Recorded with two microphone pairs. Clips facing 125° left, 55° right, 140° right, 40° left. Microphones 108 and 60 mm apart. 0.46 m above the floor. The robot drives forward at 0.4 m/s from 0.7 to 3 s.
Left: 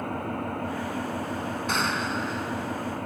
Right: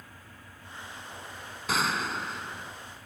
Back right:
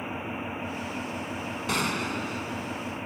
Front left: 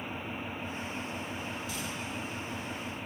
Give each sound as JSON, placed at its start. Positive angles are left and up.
{"t": 0.0, "sound": "an engine running", "azimuth_deg": 145}
{"t": 1.7, "sound": "a gunshot", "azimuth_deg": -145}